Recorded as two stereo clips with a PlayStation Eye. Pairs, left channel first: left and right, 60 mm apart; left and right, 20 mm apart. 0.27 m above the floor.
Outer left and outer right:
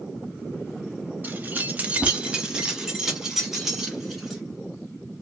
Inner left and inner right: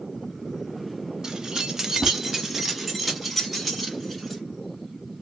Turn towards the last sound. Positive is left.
turn(degrees=-5)  # may be behind; listen again after turning